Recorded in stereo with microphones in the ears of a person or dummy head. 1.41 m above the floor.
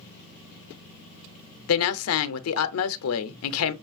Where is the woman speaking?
80° left, 0.5 m.